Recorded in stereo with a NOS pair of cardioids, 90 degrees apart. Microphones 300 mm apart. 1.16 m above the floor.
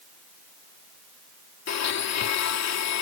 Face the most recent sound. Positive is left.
turn(degrees=60)